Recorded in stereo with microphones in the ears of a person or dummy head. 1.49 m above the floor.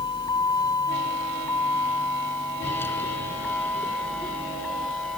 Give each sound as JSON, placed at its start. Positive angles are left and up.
{"t": 0.0, "sound": "a vehicle", "side_deg": 20}